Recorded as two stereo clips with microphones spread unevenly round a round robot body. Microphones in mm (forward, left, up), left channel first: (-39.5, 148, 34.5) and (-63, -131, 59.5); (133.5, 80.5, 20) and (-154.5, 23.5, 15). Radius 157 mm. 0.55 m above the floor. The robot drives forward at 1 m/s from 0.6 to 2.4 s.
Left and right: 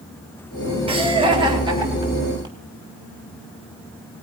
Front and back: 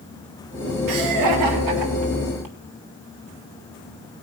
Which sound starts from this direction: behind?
Laughter, at 0.9 s.